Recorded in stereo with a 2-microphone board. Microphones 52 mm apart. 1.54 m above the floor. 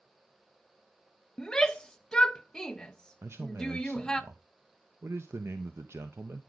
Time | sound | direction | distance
1.4 | a shout | 15° left (ahead or behind) | 0.7 m
3.2 | a man speaking | 60° right (ahead or behind) | 0.6 m